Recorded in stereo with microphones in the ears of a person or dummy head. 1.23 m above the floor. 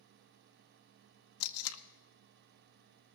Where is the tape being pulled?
85° left, 0.9 m.